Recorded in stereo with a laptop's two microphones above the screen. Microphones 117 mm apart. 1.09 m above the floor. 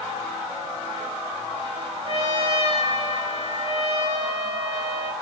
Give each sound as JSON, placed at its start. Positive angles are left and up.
{"t": 2.0, "sound": "a trumpet", "side_deg": -60, "distance_m": 10.0}